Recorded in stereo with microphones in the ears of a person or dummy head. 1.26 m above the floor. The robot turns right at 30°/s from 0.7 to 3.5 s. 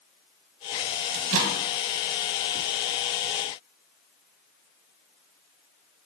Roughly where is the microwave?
Right.